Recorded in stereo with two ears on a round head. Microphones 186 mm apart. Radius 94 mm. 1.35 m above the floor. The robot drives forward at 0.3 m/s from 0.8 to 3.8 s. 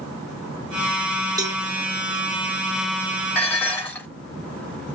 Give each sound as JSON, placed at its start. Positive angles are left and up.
{"t": 1.4, "sound": "a cowbell", "side_deg": -15, "distance_m": 0.7}
{"t": 3.4, "sound": "dishes clattering", "side_deg": 10, "distance_m": 2.5}